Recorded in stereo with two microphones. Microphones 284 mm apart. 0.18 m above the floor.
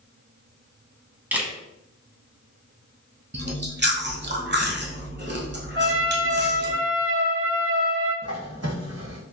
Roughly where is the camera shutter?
Centre.